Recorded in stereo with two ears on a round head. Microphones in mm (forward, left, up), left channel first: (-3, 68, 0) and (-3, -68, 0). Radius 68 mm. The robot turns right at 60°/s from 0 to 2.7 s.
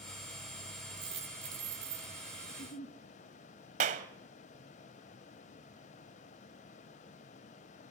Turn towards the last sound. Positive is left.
turn(degrees=-50)  # may be behind; listen again after turning